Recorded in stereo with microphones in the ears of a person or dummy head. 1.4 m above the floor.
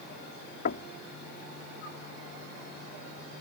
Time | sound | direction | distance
0.7 | knocking | 50° left (ahead or behind) | ?